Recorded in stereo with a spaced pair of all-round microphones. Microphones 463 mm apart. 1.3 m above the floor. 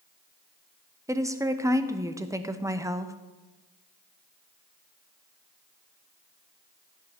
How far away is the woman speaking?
About 0.6 m.